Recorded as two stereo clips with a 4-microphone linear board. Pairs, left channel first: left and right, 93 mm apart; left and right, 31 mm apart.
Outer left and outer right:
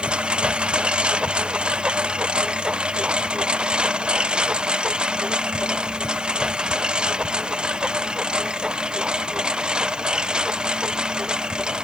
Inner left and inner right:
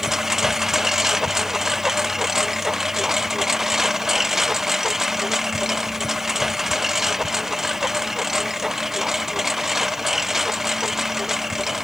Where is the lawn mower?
10° right (ahead or behind).